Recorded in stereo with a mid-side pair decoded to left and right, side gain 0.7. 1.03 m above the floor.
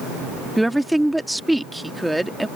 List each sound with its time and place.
0.6 s a woman speaking: 5° right